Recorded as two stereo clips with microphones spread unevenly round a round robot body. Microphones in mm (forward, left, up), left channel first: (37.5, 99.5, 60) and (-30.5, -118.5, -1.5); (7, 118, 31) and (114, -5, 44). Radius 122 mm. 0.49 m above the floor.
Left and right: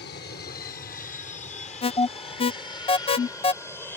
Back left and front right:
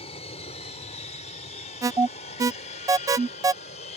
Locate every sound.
0.0 s an aircraft: 110° left; by 4.0 s 165° left
1.8 s an alarm: 5° left